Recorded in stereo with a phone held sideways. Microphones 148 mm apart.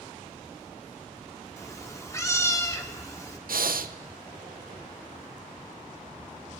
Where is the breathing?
90° right, 0.5 m.